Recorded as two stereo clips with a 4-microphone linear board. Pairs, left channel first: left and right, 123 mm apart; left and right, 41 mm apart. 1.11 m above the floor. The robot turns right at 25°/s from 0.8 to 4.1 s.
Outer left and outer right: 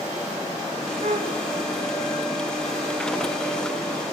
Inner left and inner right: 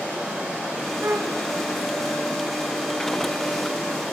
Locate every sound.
1.0 s a flute: 70° right (ahead or behind), 1.6 m; by 1.4 s 75° right (ahead or behind), 1.6 m